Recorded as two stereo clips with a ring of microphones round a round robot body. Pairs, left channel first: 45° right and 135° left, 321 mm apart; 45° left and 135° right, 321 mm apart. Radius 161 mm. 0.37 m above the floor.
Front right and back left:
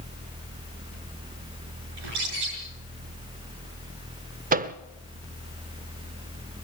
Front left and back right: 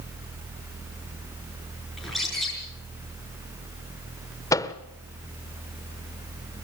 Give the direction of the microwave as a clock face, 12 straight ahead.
8 o'clock.